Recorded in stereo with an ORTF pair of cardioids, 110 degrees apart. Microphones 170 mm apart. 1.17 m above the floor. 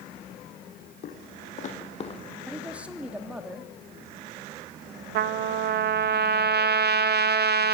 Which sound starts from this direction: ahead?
A man speaking, at 2.5 s.